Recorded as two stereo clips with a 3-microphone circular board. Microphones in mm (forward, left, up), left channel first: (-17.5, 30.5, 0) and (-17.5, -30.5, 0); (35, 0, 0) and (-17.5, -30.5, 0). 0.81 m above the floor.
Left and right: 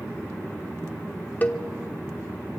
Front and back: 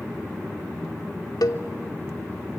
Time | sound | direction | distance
1.4 | a cowbell | 30° left | 1.1 m